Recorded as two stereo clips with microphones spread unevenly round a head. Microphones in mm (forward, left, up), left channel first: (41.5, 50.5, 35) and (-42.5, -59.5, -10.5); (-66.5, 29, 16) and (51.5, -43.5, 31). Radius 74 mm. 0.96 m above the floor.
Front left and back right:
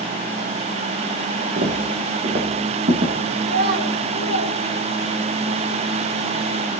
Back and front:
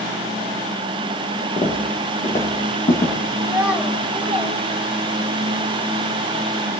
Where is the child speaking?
115° right, 3 m.